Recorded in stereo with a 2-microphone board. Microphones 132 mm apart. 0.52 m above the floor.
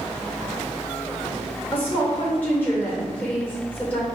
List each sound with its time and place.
1.7 s a woman speaking: 15° left (ahead or behind), 1.7 m